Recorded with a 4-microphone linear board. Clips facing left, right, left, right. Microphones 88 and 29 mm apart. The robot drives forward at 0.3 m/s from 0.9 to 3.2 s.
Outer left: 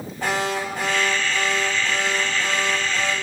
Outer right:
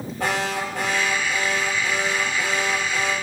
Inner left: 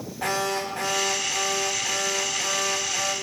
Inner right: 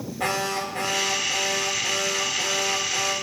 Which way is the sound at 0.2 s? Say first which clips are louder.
Outer left 1 dB, even; 80° right.